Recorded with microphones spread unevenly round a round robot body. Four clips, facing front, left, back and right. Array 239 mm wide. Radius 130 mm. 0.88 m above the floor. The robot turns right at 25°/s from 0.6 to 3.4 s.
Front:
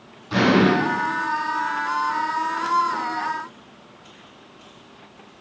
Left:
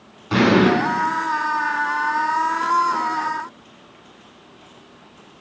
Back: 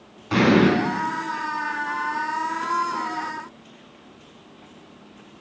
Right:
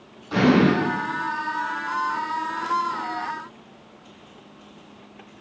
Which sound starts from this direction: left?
An explosion, at 0.3 s.